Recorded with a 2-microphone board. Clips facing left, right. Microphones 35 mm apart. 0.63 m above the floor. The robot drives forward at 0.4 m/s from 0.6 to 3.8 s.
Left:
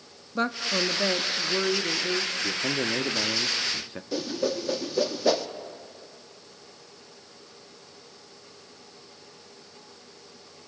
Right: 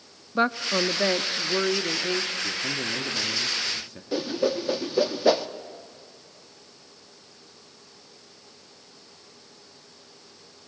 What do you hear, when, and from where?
0.3 s a woman speaking: 20° right (ahead or behind), 0.5 m; by 2.3 s 10° right (ahead or behind), 1.0 m
2.4 s a man speaking: 30° left (ahead or behind), 1.3 m; by 4.0 s 35° left (ahead or behind), 1.1 m
4.1 s a whoosh: 15° right (ahead or behind), 0.8 m